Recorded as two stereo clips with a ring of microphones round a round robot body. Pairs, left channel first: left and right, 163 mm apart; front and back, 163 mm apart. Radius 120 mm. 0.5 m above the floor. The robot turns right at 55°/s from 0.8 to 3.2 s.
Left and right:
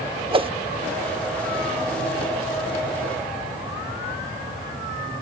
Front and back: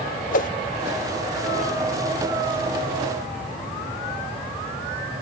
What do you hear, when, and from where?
0.3 s a whoosh: 35° right